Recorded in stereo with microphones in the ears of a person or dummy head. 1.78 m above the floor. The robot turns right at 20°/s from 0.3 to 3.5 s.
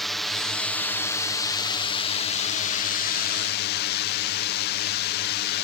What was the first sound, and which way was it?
A drone, straight ahead.